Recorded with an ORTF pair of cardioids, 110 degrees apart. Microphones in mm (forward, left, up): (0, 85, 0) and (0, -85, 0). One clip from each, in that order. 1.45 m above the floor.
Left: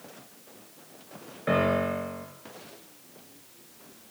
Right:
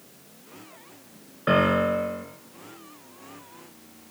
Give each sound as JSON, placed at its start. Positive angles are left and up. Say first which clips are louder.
{"t": 1.5, "sound": "a piano", "louder": "right 4 dB", "azimuth_deg": -35, "distance_m": 2.0}